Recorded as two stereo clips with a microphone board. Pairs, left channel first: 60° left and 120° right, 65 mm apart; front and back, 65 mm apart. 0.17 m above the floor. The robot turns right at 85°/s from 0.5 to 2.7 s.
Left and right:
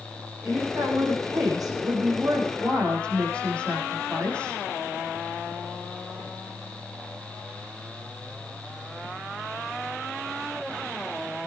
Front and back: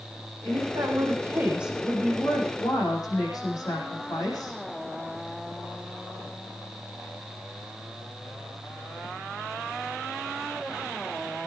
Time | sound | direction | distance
0.4 | a woman speaking | 160° left | 9 m